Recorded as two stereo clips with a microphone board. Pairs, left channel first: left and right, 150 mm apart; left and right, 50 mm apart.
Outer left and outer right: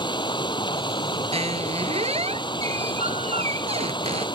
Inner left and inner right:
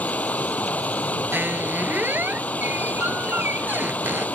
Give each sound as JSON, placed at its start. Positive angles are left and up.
{"t": 0.0, "sound": "running water", "side_deg": 30}
{"t": 1.3, "sound": "a squeak", "side_deg": -40}